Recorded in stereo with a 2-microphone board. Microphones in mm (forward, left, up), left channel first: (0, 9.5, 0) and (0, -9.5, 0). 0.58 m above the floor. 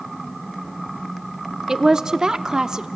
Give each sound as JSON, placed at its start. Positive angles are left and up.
{"t": 1.7, "sound": "a woman speaking", "side_deg": -30, "distance_m": 0.7}